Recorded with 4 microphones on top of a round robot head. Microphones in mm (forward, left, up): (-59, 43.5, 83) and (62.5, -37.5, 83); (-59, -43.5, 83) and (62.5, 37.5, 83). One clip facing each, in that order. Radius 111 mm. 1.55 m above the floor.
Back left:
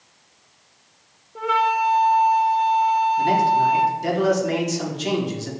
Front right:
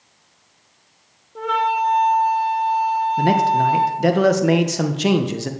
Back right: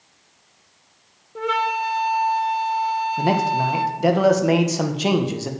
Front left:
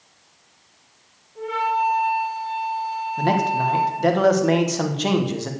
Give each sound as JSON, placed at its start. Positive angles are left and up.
{"t": 1.4, "sound": "a flute", "azimuth_deg": -130, "distance_m": 1.1}
{"t": 3.2, "sound": "a man speaking", "azimuth_deg": -65, "distance_m": 1.6}